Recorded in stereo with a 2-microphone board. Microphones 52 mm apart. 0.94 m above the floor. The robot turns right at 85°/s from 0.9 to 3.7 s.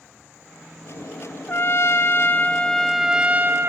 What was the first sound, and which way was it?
A trumpet, 55° left.